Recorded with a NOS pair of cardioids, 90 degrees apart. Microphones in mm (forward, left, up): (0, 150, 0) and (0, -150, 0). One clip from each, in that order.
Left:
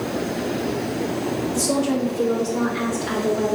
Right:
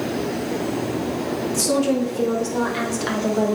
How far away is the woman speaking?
About 4 m.